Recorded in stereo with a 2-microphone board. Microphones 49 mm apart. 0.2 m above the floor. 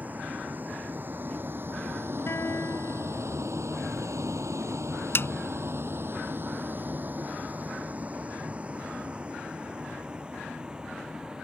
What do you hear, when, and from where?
0.0 s a vehicle: 35° right (ahead or behind); by 11.4 s 15° right (ahead or behind)
2.3 s a guitar: 60° left (ahead or behind)
5.2 s a snare drum: 55° left (ahead or behind)